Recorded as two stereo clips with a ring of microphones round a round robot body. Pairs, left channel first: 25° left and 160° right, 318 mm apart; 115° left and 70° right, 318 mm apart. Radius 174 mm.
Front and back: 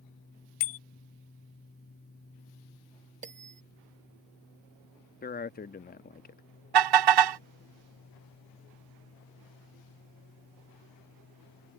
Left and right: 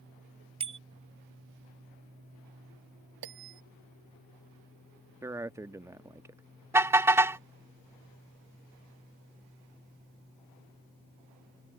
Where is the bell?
90° right.